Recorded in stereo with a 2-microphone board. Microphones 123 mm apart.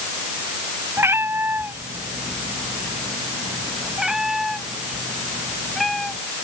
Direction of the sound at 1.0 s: 20° right (ahead or behind).